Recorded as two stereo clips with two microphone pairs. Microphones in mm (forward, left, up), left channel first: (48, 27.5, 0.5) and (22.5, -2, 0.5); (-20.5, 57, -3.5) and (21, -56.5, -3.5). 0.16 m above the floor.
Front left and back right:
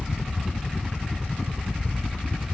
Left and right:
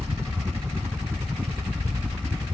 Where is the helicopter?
20° right.